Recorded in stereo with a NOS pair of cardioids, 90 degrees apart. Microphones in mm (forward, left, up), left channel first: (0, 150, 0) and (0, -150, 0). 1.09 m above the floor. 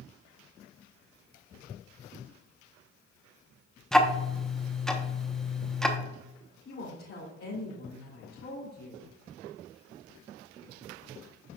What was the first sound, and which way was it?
Ticking, straight ahead.